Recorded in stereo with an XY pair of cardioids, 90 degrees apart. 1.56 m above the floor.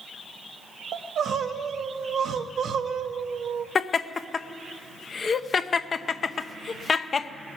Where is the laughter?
45° left, 0.7 m.